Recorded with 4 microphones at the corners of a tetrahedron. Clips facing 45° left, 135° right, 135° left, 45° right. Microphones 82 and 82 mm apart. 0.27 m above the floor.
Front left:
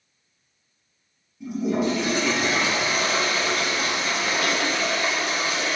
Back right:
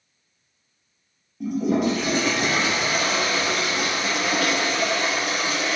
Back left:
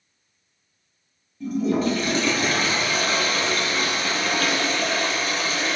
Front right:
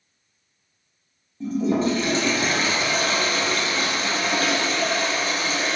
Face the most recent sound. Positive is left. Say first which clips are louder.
# back right 2 dB, front right 1 dB
turn(degrees=-105)